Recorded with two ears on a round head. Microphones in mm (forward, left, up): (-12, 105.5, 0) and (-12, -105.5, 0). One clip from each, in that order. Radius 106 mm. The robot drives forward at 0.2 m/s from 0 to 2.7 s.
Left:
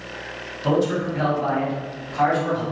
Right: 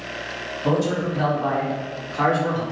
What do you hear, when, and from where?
0.6 s a man speaking: 5° right (ahead or behind), 1.4 m